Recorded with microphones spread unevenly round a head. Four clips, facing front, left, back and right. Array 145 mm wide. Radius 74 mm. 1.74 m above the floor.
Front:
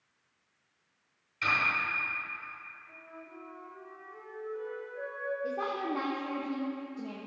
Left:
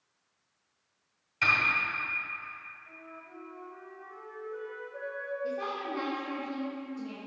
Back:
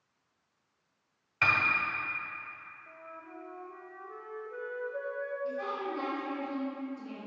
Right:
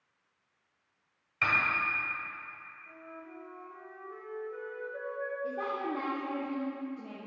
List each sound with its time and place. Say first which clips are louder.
1.4 s a piano: left 1 dB, back 2 dB; 170° right, 2 m
2.9 s a flute: right 5 dB, back 2 dB; 170° right, 1.7 m
5.4 s a woman speaking: even, front 3 dB; 15° right, 1.1 m